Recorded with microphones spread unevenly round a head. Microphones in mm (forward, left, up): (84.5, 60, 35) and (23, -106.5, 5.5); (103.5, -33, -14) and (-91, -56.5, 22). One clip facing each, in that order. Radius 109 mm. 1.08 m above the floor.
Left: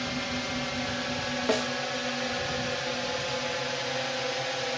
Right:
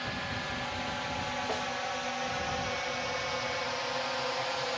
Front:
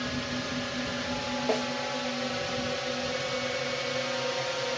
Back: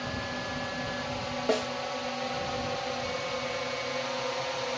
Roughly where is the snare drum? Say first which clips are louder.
Left 11 dB, back 1 dB; left.